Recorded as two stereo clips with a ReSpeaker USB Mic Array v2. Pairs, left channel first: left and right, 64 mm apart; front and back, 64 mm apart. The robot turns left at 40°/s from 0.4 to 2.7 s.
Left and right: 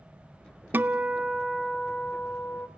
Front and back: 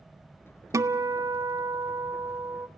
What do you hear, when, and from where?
0.7 s a guitar: 145° right, 0.5 m; by 2.7 s 135° left, 0.5 m